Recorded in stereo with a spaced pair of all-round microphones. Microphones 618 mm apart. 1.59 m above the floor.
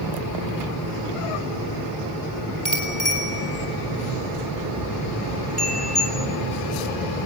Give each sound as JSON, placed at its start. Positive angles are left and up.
{"t": 2.6, "sound": "a bicycle bell", "side_deg": 85, "distance_m": 5.5}